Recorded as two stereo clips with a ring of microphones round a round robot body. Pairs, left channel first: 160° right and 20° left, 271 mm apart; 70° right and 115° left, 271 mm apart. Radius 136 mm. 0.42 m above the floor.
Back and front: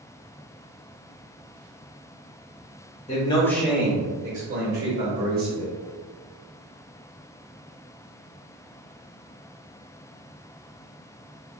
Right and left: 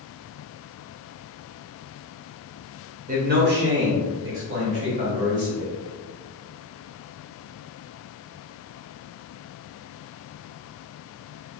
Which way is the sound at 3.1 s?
155° left.